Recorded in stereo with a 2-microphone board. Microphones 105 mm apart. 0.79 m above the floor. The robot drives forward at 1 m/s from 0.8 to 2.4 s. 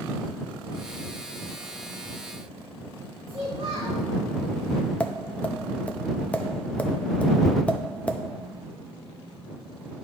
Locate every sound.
3.3 s a child speaking: 85° right, 3 m
5.0 s tapping: 15° left (ahead or behind), 0.6 m